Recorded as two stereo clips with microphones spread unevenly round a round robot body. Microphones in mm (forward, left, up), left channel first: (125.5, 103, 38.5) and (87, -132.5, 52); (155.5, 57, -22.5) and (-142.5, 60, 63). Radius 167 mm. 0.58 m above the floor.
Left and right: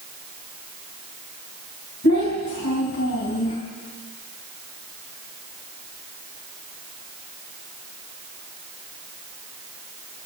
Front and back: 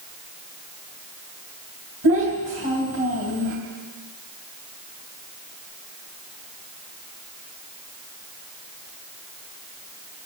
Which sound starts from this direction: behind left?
A child speaking, at 2.0 s.